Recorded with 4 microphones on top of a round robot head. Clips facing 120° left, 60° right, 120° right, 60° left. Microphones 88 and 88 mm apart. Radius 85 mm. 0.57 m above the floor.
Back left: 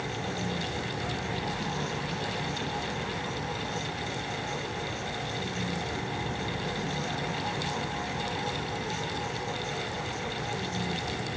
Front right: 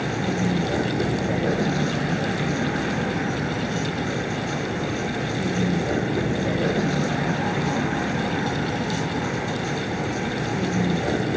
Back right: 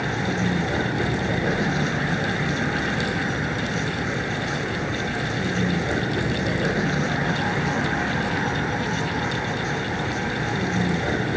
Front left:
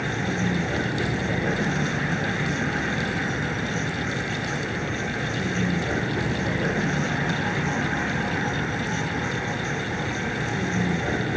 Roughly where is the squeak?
No squeak in this recording.